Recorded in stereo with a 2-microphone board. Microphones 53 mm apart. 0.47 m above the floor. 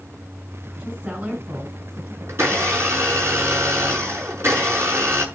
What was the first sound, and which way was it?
A woman speaking, 30° right (ahead or behind).